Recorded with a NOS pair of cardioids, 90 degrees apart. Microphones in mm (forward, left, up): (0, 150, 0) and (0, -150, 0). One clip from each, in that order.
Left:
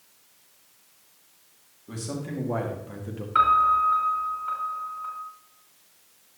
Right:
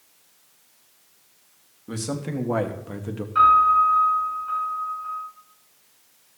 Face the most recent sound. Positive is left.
turn(degrees=60)